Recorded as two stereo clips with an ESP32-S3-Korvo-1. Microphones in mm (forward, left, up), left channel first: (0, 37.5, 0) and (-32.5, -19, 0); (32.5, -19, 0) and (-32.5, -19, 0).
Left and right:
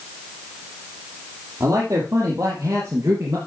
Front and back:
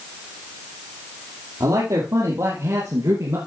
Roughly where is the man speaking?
Behind.